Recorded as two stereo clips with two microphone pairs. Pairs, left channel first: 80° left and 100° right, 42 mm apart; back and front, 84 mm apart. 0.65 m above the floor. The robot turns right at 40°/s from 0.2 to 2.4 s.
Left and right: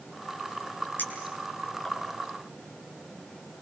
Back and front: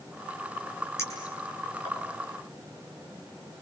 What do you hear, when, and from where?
1.0 s a clink: 120° left, 7.5 m; by 2.0 s 160° left, 7.5 m